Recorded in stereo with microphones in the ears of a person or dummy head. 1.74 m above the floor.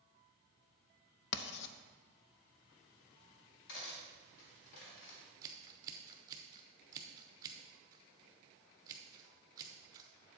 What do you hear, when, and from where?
1.3 s writing: 65° left (ahead or behind), 0.6 m
3.7 s cutlery clinking: 65° left (ahead or behind), 2 m
5.4 s scissors: 20° right (ahead or behind), 0.8 m